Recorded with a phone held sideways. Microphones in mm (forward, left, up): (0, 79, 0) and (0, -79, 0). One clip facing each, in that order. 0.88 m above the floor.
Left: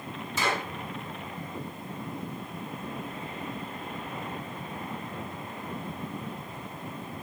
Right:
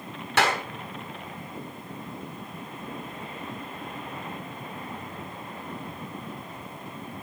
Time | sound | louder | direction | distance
0.4 | a clap | right 5 dB | 80° right | 5 m